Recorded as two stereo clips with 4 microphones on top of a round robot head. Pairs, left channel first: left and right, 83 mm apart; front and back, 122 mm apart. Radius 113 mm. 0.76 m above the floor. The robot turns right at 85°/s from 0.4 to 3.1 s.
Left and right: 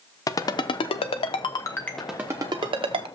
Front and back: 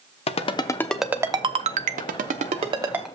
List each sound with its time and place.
0.3 s a ringtone: 40° left, 0.7 m; by 3.1 s 90° right, 0.7 m